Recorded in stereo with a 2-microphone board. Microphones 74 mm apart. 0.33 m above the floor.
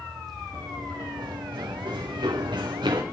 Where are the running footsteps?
65° right (ahead or behind), 2.5 m; by 3.0 s 75° right (ahead or behind), 2.5 m.